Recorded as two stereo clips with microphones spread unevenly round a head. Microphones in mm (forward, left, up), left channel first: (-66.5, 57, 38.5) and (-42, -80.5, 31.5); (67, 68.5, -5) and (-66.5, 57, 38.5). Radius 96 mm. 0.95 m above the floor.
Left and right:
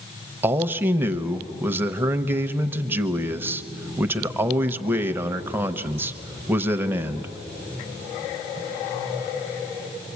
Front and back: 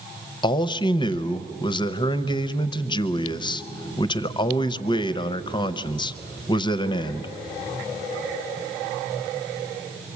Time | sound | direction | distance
0.4 | a man speaking | 10° right | 0.6 m